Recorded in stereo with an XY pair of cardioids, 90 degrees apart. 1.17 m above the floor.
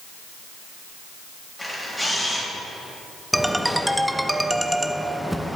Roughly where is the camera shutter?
Ahead.